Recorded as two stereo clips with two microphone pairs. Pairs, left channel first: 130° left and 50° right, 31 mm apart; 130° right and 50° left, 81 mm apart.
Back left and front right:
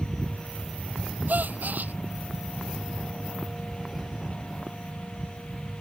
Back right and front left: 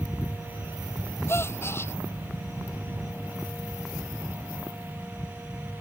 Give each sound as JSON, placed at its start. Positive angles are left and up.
{"t": 1.3, "sound": "a gasp", "azimuth_deg": -70}